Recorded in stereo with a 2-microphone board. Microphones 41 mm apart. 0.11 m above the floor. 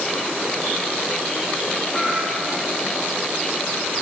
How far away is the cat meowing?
About 9 m.